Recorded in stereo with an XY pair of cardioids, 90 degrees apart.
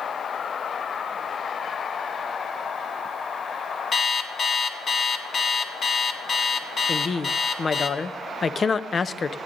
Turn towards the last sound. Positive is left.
turn(degrees=40)